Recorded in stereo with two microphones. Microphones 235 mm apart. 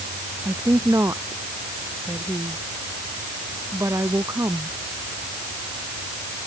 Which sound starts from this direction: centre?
A woman speaking, at 0.5 s.